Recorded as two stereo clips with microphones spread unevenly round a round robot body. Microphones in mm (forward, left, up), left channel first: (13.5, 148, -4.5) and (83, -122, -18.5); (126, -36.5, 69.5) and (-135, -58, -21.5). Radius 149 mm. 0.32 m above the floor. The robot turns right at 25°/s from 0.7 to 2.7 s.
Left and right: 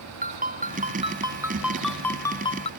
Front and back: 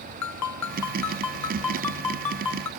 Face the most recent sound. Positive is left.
turn(degrees=35)